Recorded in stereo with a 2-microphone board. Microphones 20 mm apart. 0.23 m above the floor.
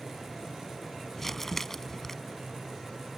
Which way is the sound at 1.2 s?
15° left (ahead or behind).